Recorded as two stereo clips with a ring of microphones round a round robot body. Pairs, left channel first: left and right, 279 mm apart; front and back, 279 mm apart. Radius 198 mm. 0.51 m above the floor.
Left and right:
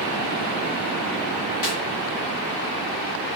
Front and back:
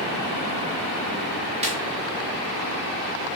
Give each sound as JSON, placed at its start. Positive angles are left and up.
{"t": 1.6, "sound": "a snare drum", "azimuth_deg": 110, "distance_m": 1.4}